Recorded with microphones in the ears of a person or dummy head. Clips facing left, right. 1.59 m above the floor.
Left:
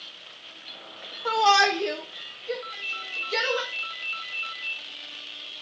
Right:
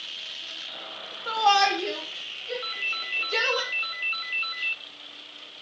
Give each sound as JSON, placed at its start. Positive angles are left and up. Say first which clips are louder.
{"t": 1.2, "sound": "a shout", "louder": "left 1 dB", "side_deg": 80, "distance_m": 3.0}
{"t": 2.6, "sound": "a ringtone", "louder": "right 1 dB", "side_deg": -60, "distance_m": 1.1}